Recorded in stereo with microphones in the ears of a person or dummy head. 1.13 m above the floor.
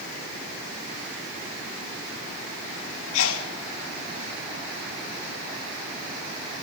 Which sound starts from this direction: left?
A sneeze, at 3.1 s.